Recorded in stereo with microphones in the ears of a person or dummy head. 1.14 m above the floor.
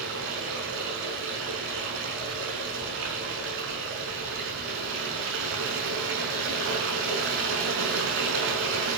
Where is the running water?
75° right (ahead or behind), 6 m.